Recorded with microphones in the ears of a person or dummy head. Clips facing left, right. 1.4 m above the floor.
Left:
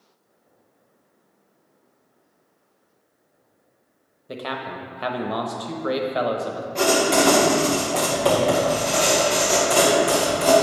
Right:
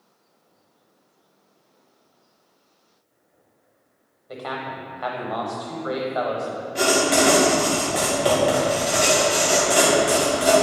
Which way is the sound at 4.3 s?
30° left (ahead or behind).